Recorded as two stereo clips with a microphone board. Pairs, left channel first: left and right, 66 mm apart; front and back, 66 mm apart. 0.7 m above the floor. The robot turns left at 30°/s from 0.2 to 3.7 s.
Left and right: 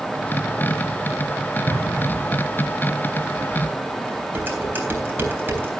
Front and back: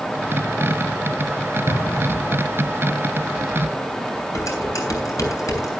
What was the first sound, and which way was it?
An explosion, 30° left.